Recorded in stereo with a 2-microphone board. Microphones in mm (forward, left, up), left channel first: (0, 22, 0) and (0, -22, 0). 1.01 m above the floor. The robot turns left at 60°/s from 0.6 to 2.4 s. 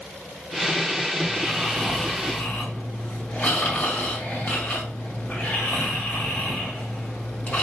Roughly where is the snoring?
Behind right.